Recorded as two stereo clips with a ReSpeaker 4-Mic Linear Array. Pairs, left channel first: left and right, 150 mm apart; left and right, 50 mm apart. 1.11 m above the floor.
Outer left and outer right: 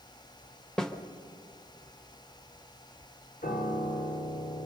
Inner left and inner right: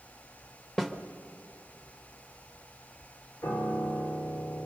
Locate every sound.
0.8 s a snare drum: 5° left (ahead or behind), 1.0 m
3.4 s a piano: 70° left (ahead or behind), 2.5 m